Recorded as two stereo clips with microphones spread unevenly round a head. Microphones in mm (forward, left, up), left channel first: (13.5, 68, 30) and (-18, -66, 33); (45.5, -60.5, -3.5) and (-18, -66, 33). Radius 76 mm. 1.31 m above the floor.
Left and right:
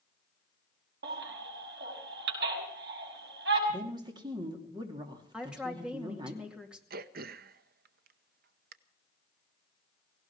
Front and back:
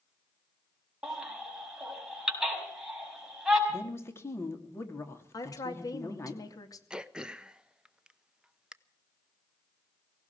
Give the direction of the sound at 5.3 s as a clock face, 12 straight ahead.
1 o'clock.